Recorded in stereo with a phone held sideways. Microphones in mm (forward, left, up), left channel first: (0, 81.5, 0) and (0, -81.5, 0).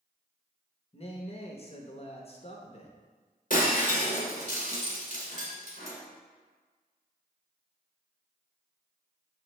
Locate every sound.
0.9 s a man speaking: 40° left (ahead or behind), 0.7 m
3.5 s breaking glass: 65° left (ahead or behind), 1.5 m